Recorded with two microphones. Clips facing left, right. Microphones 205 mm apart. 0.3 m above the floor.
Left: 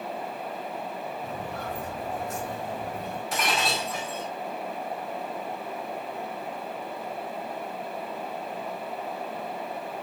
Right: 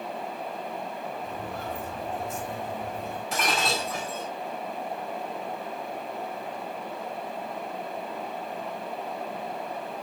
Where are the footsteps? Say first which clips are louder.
Even; 85° left, 4.5 m.